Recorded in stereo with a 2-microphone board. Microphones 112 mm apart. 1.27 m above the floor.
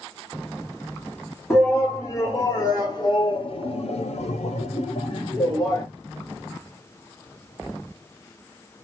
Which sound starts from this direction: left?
A shout, at 1.5 s.